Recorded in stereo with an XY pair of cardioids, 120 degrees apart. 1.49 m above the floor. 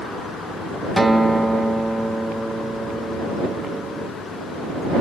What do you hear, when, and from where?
1.0 s a guitar: 10° right